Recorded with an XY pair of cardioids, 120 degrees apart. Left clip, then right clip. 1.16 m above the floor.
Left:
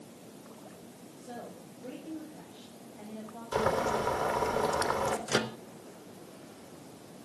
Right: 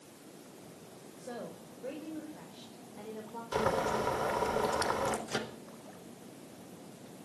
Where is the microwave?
40° left, 0.9 m.